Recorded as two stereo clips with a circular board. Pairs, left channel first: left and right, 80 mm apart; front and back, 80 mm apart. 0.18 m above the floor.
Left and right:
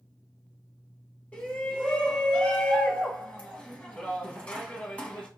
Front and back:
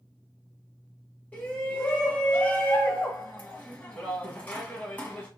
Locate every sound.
1.3 s a shout: 40° left, 1.2 m